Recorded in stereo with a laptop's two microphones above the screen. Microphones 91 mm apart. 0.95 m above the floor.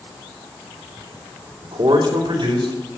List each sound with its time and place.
1.6 s a man speaking: 75° right (ahead or behind), 3 m; by 2.8 s 70° right (ahead or behind), 3.5 m